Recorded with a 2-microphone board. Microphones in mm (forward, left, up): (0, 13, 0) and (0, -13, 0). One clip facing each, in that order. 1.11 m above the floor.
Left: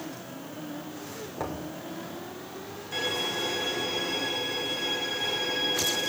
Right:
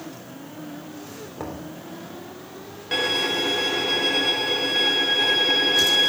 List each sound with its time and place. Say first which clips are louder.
1.4 s knocking: even; centre (ahead or behind), 3 m
2.9 s a violin: right 7 dB; 85° right, 1.9 m